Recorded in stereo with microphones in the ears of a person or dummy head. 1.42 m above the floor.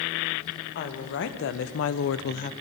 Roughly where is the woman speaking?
Left.